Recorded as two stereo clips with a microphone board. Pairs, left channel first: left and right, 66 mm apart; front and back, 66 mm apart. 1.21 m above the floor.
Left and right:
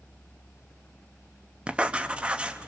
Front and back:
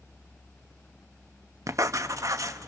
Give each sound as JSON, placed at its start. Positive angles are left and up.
{"t": 1.7, "sound": "writing", "azimuth_deg": -160, "distance_m": 0.7}